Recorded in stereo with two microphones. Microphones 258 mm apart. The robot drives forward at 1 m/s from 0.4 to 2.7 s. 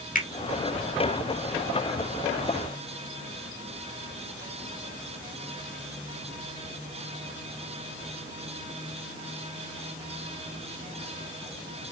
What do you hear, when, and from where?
0.1 s a finger snap: 35° left (ahead or behind), 1.8 m